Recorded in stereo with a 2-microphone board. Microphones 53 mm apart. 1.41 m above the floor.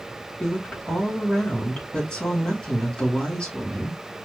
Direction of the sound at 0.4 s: 15° left (ahead or behind).